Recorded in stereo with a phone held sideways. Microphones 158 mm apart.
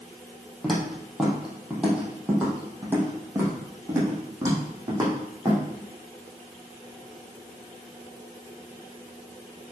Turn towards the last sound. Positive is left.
turn(degrees=-25)  # may be behind; listen again after turning